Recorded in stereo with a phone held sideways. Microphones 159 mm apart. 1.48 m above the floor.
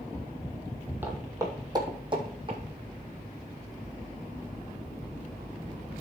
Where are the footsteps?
10° right (ahead or behind), 2.5 m; by 2.6 s 35° right (ahead or behind), 3.5 m.